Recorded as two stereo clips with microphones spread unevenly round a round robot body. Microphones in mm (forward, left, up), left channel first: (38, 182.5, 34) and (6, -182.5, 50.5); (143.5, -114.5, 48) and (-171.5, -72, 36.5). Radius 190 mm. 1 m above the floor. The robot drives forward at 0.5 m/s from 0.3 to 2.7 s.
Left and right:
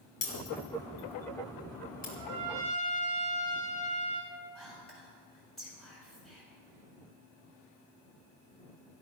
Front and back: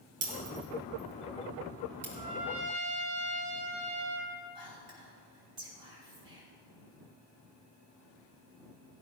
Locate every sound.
0.2 s breaking glass: 150° left, 4 m; by 2.0 s 155° left, 4.5 m
2.1 s a trumpet: 170° right, 4 m
4.5 s whispering: 175° left, 6.5 m